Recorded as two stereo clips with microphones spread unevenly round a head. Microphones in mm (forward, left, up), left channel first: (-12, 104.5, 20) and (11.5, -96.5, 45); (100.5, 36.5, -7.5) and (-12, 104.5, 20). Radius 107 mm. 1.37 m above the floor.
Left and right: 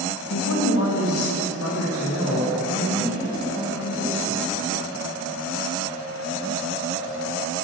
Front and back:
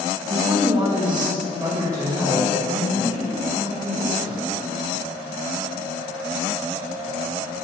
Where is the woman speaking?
95° left, 1.9 m; by 4.4 s 85° left, 7 m.